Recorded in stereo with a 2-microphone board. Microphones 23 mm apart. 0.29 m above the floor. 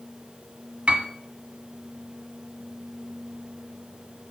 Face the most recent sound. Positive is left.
turn(degrees=-65)  # may be behind; listen again after turning